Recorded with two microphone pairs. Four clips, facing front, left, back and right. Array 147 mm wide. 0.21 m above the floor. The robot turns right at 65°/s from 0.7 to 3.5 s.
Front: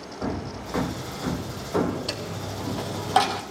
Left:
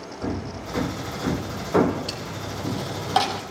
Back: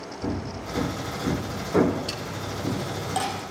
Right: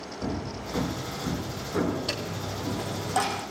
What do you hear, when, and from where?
0.2 s hammering: 15° left, 5.5 m; by 2.9 s 155° left, 5.5 m
2.1 s a dropped coin: 30° right, 2 m; by 3.4 s 55° left, 2 m